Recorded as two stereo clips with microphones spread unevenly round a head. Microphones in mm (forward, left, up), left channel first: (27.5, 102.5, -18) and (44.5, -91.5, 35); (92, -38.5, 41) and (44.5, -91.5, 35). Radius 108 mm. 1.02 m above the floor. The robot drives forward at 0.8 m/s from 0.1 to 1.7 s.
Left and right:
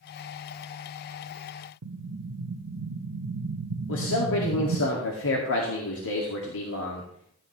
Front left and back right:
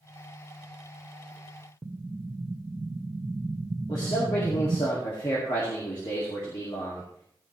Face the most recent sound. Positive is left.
turn(degrees=100)